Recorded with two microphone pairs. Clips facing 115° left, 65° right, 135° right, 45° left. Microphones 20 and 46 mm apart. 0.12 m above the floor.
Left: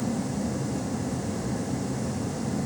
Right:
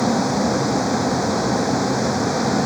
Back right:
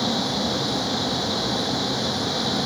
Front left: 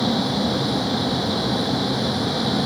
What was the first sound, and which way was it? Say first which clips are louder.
A vehicle: right 10 dB, front left 3 dB; 40° right.